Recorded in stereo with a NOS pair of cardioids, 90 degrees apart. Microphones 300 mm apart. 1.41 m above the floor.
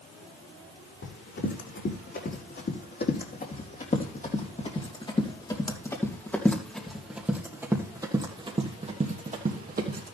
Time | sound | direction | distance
1.0 | running footsteps | 45° left | 4.5 m